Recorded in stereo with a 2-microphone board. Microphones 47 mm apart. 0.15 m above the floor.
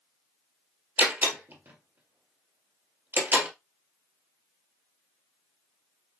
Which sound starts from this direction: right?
A door slam, at 1.0 s.